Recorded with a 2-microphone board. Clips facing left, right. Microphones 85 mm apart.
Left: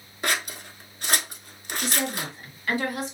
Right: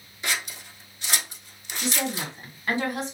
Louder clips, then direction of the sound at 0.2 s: Left 3 dB; 50° left (ahead or behind).